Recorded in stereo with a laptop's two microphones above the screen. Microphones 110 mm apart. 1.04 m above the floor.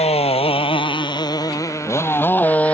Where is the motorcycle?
70° left (ahead or behind); by 2.8 s 10° left (ahead or behind).